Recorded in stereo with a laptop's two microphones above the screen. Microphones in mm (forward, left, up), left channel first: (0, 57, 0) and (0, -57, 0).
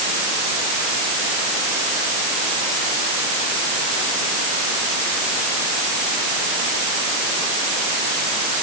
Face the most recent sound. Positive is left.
No sound to turn to.